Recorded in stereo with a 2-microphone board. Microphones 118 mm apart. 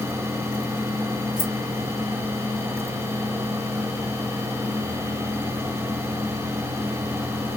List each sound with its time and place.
1.4 s keys jangling: 10° right (ahead or behind), 1.0 m